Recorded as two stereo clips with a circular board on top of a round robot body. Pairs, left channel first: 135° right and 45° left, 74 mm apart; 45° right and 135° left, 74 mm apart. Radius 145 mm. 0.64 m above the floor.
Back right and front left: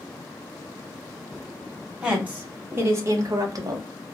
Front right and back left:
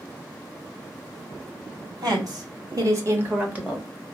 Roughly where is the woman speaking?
Behind left.